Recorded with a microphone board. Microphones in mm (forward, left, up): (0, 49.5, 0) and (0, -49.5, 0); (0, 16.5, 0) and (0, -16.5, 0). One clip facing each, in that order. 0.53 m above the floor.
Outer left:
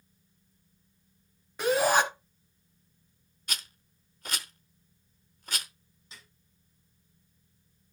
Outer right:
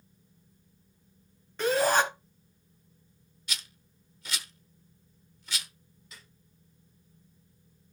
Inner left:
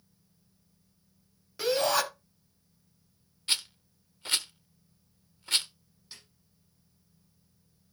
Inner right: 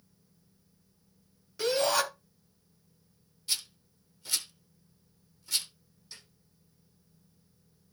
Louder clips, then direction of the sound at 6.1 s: Even, even; 25° left (ahead or behind).